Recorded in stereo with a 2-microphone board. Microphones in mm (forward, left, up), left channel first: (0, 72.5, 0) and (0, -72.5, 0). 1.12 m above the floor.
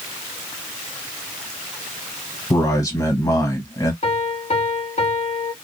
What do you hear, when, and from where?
2.5 s a man speaking: 25° left (ahead or behind), 1.4 m
4.0 s a piano: 55° left (ahead or behind), 2 m